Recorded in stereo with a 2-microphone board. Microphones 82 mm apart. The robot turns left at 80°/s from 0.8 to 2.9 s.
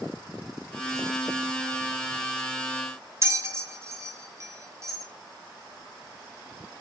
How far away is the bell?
About 1.8 m.